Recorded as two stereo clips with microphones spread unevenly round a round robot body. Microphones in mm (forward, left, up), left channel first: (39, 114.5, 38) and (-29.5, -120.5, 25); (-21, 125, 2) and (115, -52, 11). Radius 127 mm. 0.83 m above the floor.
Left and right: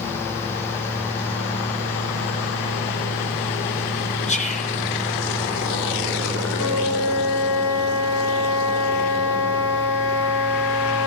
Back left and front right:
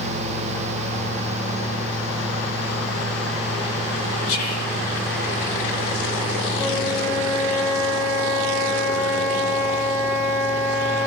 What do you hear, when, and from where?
4.3 s whispering: 135° left, 1.4 m
6.5 s a flute: 70° left, 2 m